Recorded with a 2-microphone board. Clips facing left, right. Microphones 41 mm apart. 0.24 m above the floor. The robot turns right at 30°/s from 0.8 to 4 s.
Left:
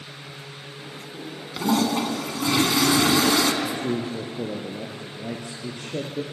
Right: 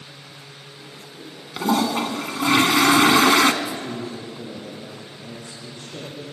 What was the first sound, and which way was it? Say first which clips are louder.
A toilet flushing: right 1 dB; 165° right.